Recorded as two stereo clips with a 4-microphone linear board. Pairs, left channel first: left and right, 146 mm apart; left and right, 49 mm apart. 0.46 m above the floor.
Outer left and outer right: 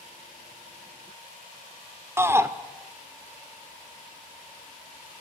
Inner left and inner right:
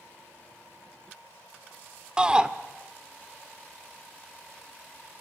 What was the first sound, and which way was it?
A shout, 15° right (ahead or behind).